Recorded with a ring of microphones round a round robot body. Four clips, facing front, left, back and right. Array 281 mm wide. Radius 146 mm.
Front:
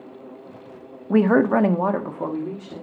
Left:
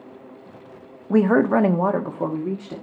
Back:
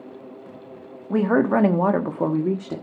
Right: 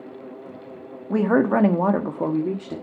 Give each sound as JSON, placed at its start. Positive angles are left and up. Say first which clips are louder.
{"t": 1.1, "sound": "a woman speaking", "louder": "left 2 dB, front 2 dB", "azimuth_deg": 25, "distance_m": 1.3}